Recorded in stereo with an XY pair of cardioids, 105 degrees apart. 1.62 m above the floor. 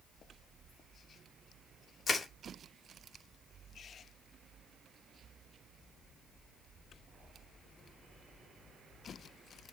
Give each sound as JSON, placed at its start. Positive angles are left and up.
{"t": 2.1, "sound": "crushing", "azimuth_deg": 35, "distance_m": 3.0}